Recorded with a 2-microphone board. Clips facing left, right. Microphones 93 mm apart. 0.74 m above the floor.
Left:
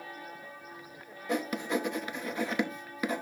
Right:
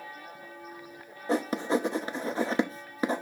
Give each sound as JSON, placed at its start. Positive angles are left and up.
{"t": 1.3, "sound": "writing", "side_deg": -30, "distance_m": 0.7}